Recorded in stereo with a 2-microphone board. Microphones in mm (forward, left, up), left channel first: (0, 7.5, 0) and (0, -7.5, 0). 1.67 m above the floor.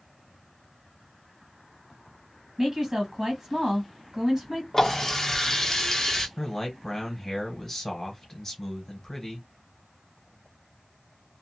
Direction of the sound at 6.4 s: 30° left (ahead or behind).